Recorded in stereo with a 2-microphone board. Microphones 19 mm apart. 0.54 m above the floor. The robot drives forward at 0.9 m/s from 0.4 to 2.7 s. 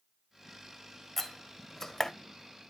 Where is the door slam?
10° left (ahead or behind), 1.7 m; by 2.1 s 25° left (ahead or behind), 0.9 m.